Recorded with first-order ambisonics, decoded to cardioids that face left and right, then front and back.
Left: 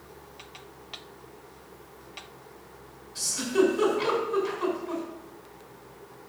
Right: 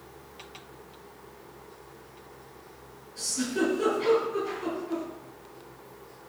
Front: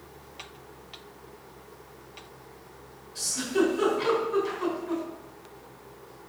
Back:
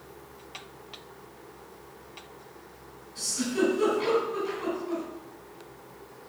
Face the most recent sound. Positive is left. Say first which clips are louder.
# left 4 dB, front 2 dB
turn(degrees=55)